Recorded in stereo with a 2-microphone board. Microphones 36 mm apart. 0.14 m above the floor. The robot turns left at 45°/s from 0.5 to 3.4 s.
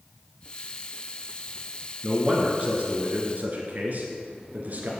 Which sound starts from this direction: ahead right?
A man speaking, at 2.0 s.